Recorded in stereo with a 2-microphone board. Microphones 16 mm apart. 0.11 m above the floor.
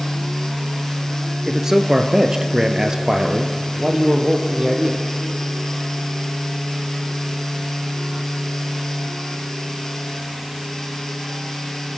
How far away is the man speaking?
About 1.4 m.